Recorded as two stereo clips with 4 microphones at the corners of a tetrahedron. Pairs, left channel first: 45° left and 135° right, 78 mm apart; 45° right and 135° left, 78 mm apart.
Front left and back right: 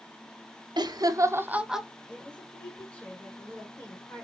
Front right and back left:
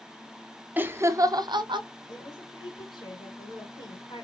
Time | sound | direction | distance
0.8 | laughter | 160° right | 0.8 m
2.1 | a woman speaking | 35° right | 2 m